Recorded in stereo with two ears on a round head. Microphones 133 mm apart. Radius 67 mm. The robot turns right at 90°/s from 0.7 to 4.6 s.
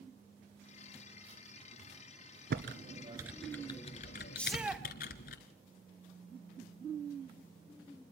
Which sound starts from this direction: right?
Typing on a keyboard, at 2.5 s.